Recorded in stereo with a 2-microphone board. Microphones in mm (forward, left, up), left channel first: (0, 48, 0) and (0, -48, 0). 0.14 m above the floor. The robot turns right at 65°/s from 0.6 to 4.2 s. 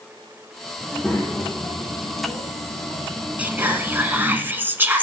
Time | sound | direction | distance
0.8 | a child speaking | 5° right | 3.5 m
3.4 | whispering | 15° right (ahead or behind) | 1.1 m